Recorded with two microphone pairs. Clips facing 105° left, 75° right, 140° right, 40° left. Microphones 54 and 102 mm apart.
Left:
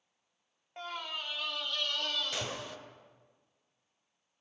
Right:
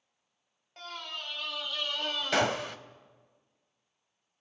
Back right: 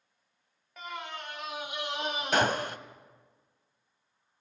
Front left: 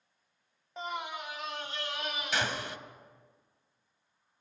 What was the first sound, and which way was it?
A scream, 50° left.